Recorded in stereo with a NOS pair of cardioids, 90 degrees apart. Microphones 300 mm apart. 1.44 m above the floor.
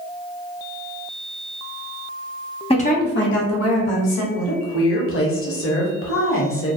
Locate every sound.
2.7 s a woman speaking: 20° left, 0.8 m; by 4.2 s 65° left, 1.3 m
4.3 s a woman speaking: 45° left, 1.1 m